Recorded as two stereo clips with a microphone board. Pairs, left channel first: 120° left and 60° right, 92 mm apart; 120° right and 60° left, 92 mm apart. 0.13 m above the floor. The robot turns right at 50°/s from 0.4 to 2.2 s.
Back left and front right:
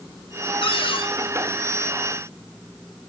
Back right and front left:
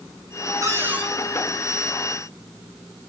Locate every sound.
0.6 s a cupboard door: 115° left, 2.5 m; by 1.1 s 140° left, 2.5 m